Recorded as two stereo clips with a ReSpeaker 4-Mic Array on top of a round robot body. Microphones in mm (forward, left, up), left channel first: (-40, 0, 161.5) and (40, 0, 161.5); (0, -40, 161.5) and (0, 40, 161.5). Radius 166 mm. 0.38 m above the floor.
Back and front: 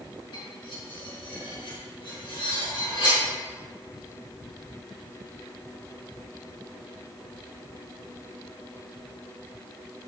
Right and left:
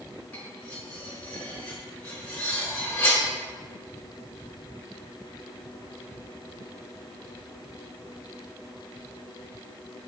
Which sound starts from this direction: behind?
Cutlery clinking, at 0.3 s.